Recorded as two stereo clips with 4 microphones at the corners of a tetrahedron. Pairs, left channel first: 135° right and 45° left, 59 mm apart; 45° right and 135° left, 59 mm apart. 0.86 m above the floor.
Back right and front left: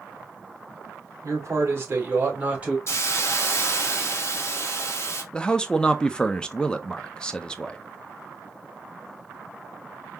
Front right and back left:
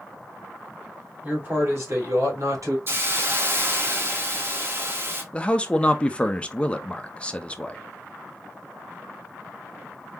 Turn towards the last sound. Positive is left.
turn(degrees=-85)